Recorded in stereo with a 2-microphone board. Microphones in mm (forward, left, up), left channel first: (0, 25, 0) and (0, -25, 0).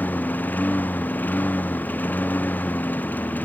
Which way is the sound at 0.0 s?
35° left (ahead or behind).